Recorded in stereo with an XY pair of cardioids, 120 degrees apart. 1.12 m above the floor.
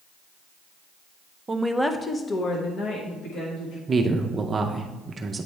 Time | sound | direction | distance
1.5 | a woman speaking | 30° right | 0.6 m
3.9 | a man speaking | 30° right | 0.5 m